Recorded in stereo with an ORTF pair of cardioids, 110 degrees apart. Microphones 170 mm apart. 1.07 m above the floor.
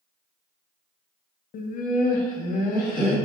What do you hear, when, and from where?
1.5 s laughter: 50° left, 0.5 m